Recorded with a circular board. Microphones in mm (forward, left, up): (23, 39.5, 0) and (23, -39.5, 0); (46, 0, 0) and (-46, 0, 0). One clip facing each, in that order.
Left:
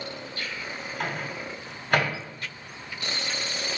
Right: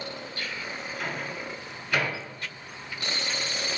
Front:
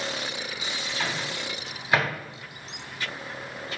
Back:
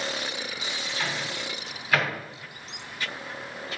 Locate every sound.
1.0 s a microwave: 65° left, 2 m